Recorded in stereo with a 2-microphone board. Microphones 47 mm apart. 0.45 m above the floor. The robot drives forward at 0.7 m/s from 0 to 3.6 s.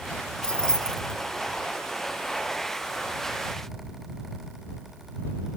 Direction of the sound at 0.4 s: 20° left (ahead or behind).